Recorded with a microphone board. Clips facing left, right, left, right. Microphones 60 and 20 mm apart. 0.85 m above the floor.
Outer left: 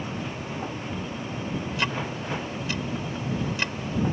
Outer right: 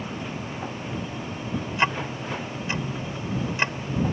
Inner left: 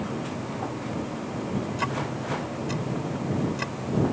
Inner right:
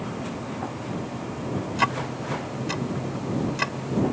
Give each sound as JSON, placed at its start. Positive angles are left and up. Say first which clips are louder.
{"t": 1.8, "sound": "ticking", "louder": "outer right 6 dB, inner right 4 dB", "side_deg": -30}